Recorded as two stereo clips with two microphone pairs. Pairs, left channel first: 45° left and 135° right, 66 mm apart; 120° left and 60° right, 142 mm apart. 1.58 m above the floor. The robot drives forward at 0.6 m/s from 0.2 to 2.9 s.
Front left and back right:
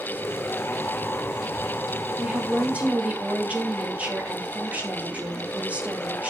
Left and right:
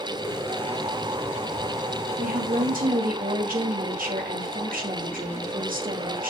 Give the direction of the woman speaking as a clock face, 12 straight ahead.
2 o'clock.